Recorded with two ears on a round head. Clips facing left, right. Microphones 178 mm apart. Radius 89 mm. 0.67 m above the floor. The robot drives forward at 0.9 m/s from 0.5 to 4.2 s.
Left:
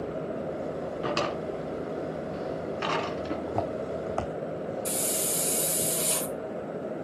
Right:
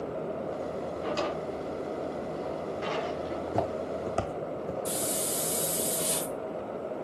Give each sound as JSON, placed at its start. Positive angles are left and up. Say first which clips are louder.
{"t": 1.0, "sound": "a drawer", "louder": "left 2 dB", "side_deg": 65, "distance_m": 3.5}
{"t": 3.5, "sound": "footsteps", "louder": "even", "side_deg": -10, "distance_m": 2.0}
{"t": 4.8, "sound": "a hiss", "louder": "left 1 dB", "side_deg": 35, "distance_m": 5.5}